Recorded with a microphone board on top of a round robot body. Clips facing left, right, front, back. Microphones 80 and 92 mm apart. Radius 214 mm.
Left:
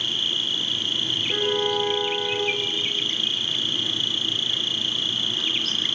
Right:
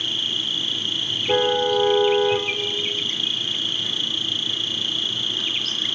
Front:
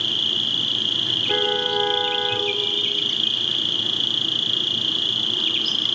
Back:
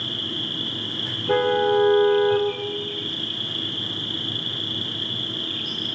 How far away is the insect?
About 0.8 m.